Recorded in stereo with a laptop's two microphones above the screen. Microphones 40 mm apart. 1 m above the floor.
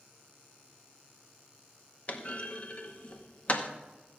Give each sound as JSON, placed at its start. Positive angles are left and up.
{"t": 2.1, "sound": "a clunk", "side_deg": 35, "distance_m": 0.9}